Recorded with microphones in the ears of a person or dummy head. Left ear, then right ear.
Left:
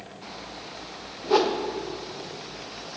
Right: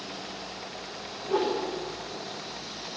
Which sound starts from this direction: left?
A whoosh, at 1.2 s.